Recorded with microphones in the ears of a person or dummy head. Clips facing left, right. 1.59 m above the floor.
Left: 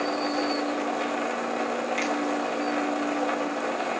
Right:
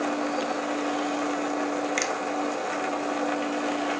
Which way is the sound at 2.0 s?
65° right (ahead or behind).